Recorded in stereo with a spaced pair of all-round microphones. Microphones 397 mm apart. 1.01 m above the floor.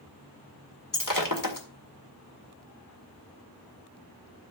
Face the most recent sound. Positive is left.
turn(degrees=55)  # may be behind; listen again after turning